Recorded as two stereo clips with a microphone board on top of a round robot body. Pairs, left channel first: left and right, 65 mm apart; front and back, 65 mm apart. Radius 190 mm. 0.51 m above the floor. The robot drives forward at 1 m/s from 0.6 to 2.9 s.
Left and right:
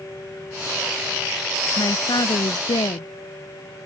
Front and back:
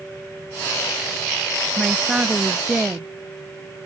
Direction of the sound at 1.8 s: 100° left.